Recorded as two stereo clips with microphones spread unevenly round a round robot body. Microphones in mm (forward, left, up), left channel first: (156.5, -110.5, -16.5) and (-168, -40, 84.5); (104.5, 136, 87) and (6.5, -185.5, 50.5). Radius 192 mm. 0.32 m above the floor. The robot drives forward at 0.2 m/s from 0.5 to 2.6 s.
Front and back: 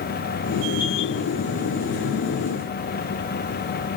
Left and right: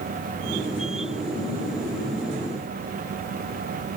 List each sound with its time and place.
Only background noise.